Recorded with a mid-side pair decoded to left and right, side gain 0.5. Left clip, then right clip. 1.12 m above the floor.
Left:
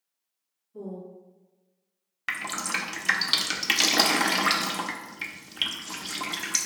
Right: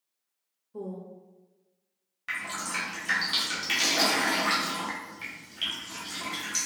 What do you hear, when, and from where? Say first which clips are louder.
0.7 s a woman speaking: even; 65° right, 1.2 m
2.3 s dripping: left 3 dB; 55° left, 0.6 m